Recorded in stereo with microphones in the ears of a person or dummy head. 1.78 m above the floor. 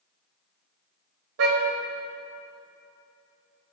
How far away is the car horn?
About 4.5 m.